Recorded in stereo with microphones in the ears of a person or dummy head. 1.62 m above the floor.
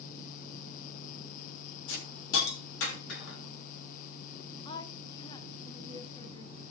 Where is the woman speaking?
25° left (ahead or behind), 1.1 m.